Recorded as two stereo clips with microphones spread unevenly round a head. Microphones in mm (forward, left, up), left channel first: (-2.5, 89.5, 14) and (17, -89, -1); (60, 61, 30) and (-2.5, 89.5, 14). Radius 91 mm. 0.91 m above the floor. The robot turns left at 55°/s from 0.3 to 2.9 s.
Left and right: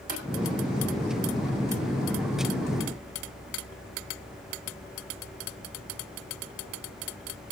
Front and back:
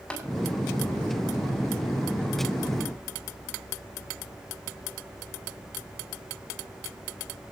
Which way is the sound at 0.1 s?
50° left.